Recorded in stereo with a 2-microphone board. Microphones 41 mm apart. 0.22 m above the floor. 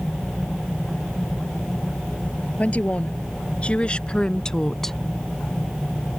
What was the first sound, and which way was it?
A woman speaking, 40° left (ahead or behind).